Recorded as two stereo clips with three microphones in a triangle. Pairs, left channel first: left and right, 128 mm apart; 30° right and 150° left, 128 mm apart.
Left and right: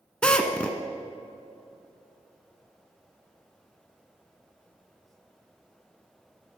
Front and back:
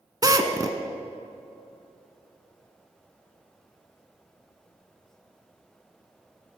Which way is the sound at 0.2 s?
165° left.